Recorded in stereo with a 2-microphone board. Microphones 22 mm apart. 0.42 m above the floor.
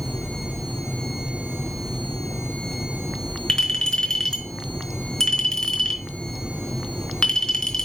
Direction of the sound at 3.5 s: 30° left (ahead or behind).